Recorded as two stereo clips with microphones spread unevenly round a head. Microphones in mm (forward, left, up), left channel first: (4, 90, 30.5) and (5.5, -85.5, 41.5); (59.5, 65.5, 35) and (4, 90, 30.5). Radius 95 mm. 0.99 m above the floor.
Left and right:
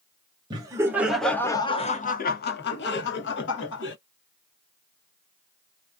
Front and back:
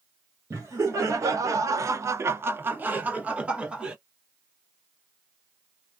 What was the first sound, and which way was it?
Laughter, 155° right.